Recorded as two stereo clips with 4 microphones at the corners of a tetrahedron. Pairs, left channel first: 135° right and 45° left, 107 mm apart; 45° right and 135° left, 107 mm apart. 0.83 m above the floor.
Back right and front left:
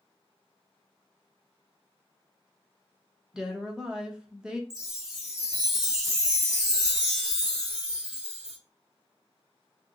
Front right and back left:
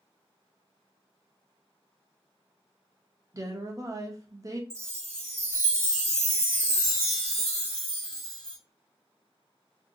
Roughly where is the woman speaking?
Behind left.